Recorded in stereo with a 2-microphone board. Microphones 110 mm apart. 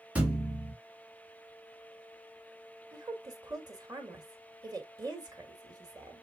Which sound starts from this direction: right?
A woman speaking, at 2.9 s.